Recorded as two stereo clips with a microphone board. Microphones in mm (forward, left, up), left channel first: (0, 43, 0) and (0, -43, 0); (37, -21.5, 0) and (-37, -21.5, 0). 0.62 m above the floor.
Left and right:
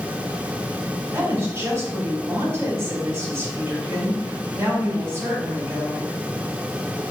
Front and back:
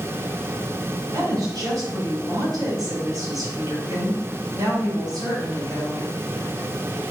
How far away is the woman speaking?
About 2.5 m.